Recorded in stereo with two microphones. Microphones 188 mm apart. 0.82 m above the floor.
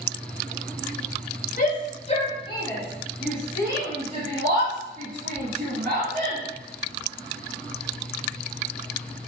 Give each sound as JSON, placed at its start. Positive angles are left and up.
{"t": 1.6, "sound": "a shout", "side_deg": 45, "distance_m": 1.3}